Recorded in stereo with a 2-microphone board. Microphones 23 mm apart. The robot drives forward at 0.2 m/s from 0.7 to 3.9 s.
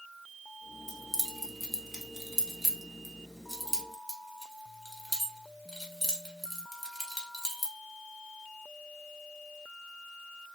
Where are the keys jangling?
15° right (ahead or behind), 0.9 m; by 7.7 s 10° right (ahead or behind), 1.3 m.